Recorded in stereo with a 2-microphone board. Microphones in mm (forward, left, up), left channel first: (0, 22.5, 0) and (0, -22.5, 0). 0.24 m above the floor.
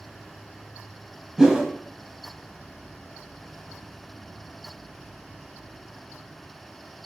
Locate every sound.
1.4 s a whoosh: 15° right (ahead or behind), 0.5 m